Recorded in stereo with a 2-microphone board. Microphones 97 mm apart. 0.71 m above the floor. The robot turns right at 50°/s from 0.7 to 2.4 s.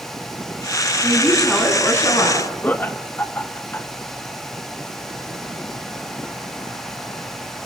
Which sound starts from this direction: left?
Laughter, at 2.6 s.